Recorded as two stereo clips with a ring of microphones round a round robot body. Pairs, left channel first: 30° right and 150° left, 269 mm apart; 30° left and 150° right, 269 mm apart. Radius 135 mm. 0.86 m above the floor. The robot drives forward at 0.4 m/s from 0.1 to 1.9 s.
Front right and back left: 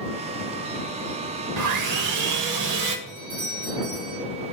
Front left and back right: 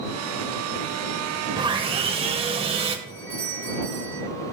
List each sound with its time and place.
1.6 s sawing: 135° left, 1.0 m; by 3.0 s 140° left, 1.1 m
3.1 s a doorbell: 140° left, 5 m